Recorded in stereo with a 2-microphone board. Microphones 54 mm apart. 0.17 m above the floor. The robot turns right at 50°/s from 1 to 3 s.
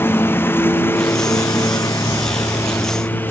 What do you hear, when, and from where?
0.0 s a lawn mower: 40° left; by 3.3 s 140° left